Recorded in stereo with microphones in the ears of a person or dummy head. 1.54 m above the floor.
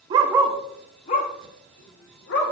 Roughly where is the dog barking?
Right.